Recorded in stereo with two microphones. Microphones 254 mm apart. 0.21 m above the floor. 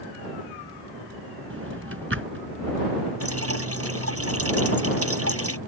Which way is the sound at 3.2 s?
65° right (ahead or behind).